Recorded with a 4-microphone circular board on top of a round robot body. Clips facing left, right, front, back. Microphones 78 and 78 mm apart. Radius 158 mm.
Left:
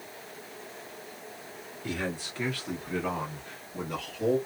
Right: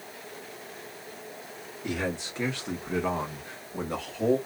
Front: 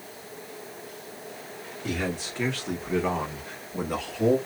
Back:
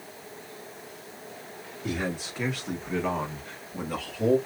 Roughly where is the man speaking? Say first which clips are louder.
Right 2 dB, front 1 dB; behind right.